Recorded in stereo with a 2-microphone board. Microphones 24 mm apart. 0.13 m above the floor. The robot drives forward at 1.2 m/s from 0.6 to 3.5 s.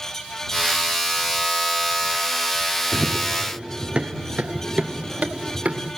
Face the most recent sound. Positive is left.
turn(degrees=-65)  # may be behind; listen again after turning